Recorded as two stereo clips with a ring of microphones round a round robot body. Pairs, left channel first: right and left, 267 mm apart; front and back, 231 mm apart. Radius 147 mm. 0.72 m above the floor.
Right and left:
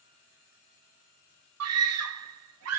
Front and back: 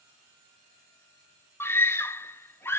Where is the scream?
80° left, 1.6 m.